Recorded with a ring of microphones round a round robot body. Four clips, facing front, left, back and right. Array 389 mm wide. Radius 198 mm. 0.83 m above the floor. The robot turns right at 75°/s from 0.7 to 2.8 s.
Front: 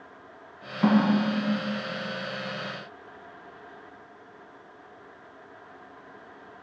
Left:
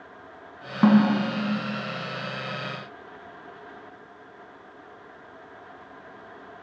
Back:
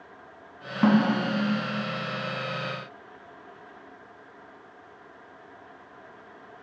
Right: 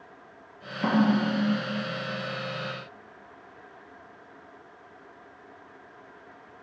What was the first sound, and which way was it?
A snare drum, 115° left.